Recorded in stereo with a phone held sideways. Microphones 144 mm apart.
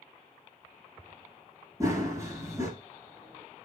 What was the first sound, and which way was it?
Running footsteps, 20° right (ahead or behind).